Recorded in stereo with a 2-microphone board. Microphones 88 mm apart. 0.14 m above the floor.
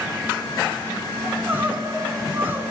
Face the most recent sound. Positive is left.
turn(degrees=-25)  # may be behind; listen again after turning